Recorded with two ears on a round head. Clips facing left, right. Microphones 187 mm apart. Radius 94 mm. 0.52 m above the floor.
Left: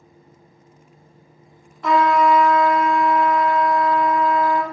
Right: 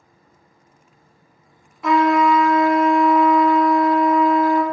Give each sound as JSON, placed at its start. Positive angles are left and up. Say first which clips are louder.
{"t": 1.8, "sound": "a trumpet", "louder": "right 1 dB", "side_deg": -5, "distance_m": 0.5}